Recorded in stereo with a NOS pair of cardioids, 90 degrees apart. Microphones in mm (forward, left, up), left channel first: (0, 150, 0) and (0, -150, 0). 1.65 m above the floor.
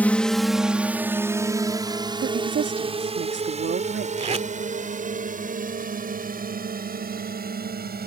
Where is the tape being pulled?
25° right.